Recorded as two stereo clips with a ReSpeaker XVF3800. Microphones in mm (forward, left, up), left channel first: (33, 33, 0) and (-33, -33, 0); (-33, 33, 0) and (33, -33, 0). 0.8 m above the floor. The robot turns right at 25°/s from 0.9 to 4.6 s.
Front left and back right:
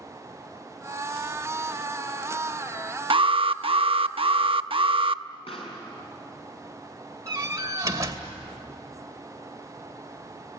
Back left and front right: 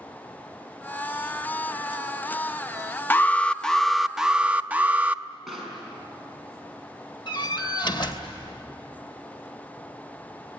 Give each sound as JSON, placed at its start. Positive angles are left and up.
{"t": 3.1, "sound": "an alarm", "azimuth_deg": -155, "distance_m": 0.6}
{"t": 5.5, "sound": "a pop", "azimuth_deg": 45, "distance_m": 6.0}
{"t": 7.3, "sound": "a door slam", "azimuth_deg": 170, "distance_m": 2.5}